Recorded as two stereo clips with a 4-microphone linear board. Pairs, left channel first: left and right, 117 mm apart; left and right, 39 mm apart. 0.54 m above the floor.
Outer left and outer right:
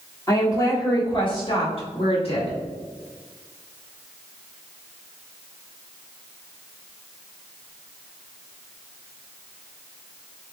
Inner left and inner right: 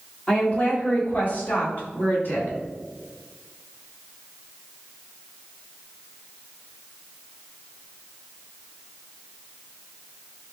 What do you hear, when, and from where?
0.3 s a woman speaking: 25° left (ahead or behind), 1.3 m; by 2.6 s 60° left (ahead or behind), 2.5 m